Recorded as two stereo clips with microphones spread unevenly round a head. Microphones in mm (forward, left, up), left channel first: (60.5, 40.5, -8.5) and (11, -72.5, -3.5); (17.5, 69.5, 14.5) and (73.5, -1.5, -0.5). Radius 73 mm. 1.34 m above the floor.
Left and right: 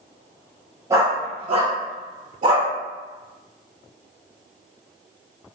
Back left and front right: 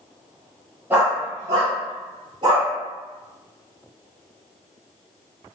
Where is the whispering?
I don't hear whispering.